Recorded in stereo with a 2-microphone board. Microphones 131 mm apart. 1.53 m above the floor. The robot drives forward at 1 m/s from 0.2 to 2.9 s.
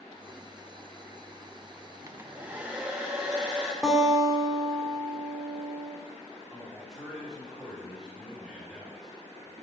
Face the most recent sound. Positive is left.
turn(degrees=-5)  # may be behind; listen again after turning